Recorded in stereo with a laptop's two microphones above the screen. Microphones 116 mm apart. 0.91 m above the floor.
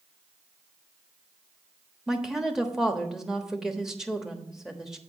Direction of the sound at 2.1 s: 5° right (ahead or behind).